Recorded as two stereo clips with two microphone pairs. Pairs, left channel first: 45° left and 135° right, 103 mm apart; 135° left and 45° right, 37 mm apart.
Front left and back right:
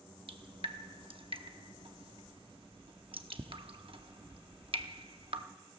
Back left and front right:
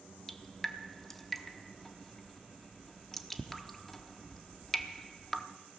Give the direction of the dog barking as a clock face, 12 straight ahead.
I don't hear a dog barking.